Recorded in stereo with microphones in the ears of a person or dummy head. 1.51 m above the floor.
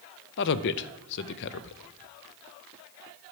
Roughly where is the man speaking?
Left.